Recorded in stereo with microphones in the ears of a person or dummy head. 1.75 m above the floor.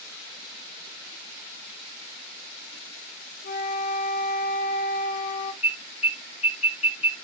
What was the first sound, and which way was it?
A flute, 55° left (ahead or behind).